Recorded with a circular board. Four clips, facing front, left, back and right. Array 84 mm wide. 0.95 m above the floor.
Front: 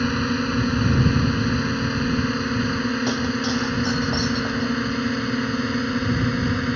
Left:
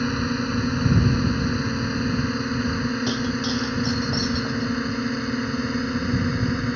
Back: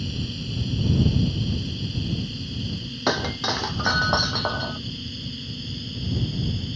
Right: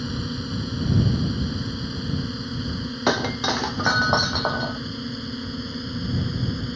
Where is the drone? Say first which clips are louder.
Left 6 dB, front 11 dB; 25° left.